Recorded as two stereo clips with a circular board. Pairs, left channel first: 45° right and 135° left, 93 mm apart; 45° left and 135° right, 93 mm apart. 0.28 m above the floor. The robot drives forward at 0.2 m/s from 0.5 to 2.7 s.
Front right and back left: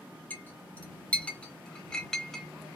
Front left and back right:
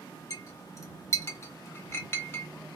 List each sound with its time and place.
0.3 s a clink: 15° left, 1.1 m; by 2.5 s 35° left, 0.9 m